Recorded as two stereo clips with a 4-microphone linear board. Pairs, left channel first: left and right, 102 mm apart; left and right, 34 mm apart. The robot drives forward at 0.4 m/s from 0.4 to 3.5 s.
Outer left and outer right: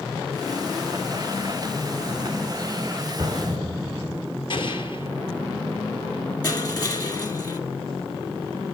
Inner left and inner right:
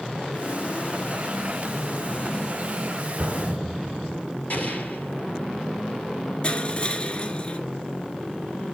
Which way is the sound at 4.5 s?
55° left (ahead or behind).